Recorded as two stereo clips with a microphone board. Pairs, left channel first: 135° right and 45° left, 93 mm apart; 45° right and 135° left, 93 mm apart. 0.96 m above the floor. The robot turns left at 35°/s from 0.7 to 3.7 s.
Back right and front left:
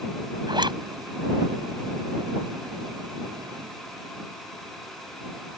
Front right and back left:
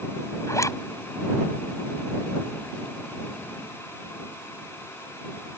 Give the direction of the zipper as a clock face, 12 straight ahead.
12 o'clock.